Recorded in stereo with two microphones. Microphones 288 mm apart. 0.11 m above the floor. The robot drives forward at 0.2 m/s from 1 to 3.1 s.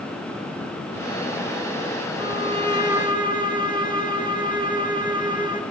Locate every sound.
2.2 s a violin: 15° right (ahead or behind), 1.3 m